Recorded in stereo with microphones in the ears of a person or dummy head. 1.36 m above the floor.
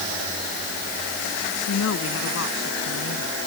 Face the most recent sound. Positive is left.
turn(degrees=75)  # may be behind; listen again after turning